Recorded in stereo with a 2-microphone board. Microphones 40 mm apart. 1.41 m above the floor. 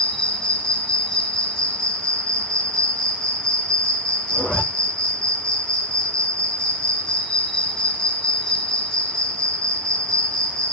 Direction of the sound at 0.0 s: 20° left (ahead or behind).